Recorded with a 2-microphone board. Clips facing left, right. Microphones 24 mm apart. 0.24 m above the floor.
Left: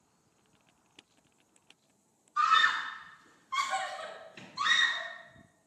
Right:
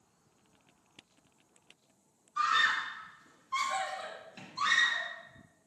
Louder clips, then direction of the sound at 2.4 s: Left 3 dB; centre (ahead or behind).